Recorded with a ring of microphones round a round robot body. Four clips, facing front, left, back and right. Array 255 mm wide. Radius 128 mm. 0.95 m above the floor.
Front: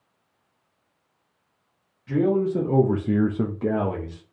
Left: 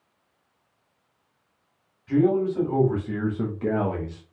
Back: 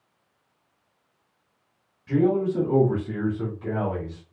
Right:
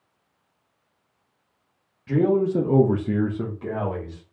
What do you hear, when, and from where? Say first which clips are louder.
2.1 s a man speaking: right 1 dB, even; 85° right, 1.3 m; by 4.2 s 45° left, 1.1 m